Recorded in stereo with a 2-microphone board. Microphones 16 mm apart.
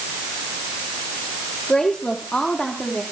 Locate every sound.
1.7 s a woman speaking: 55° left (ahead or behind), 5.5 m; by 3.0 s 45° left (ahead or behind), 5.5 m